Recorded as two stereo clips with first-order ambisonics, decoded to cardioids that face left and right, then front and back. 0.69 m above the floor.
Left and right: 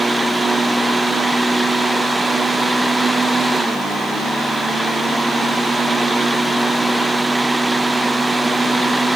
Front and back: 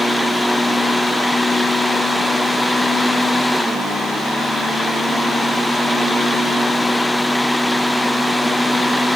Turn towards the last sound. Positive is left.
No sound to turn to.